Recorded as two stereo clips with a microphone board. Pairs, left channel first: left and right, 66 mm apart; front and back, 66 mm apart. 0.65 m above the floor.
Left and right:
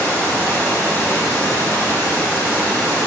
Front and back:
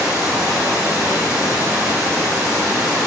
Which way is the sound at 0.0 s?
150° left.